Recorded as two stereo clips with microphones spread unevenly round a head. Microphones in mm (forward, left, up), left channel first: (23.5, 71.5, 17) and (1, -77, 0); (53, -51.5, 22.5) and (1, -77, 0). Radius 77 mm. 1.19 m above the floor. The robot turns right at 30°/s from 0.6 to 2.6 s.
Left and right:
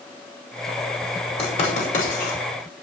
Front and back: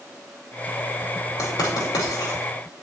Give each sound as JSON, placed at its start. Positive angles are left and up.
{"t": 1.4, "sound": "writing", "azimuth_deg": 30, "distance_m": 5.5}